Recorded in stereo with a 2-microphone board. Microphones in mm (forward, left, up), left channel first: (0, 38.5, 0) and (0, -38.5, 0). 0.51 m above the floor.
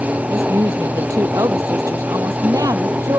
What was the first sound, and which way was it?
A woman speaking, 45° right (ahead or behind).